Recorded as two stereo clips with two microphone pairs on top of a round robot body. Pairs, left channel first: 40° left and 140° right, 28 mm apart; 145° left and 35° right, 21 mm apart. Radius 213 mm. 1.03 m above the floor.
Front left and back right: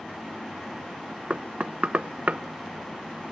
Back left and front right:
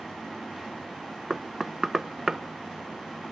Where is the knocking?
110° right, 1.0 m.